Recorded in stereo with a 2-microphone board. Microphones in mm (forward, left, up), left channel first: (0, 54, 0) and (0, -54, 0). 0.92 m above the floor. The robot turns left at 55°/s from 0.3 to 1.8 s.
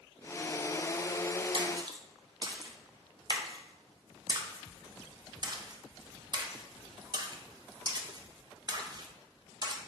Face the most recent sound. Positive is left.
turn(degrees=-40)  # may be behind; listen again after turning